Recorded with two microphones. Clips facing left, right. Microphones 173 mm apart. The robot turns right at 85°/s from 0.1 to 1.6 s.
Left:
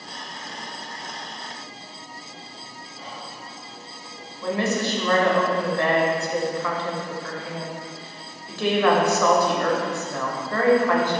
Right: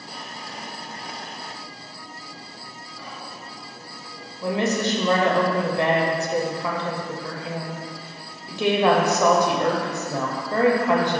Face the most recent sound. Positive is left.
turn(degrees=-20)  # may be behind; listen again after turning